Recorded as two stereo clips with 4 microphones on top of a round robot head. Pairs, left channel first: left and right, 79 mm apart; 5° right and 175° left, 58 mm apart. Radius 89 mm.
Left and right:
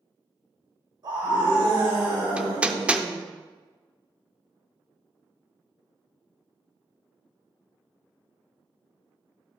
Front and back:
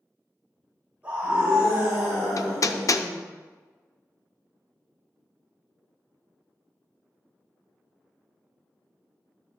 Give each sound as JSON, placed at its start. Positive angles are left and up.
{"t": 1.0, "sound": "a scream", "azimuth_deg": -110, "distance_m": 4.0}
{"t": 2.4, "sound": "hammering", "azimuth_deg": -15, "distance_m": 0.6}